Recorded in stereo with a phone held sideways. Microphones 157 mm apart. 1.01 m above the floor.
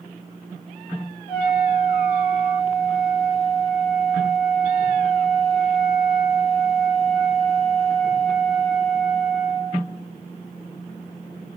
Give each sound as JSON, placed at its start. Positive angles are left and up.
{"t": 1.3, "sound": "a flute", "side_deg": 50, "distance_m": 1.3}